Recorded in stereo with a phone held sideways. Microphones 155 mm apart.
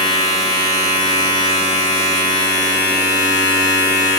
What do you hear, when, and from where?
0.0 s a machine running: 40° right (ahead or behind), 1.1 m